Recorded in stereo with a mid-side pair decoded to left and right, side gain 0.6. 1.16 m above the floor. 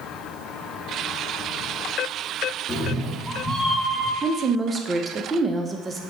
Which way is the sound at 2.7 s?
20° left.